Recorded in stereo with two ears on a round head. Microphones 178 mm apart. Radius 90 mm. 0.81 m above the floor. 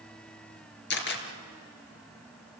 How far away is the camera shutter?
About 3 m.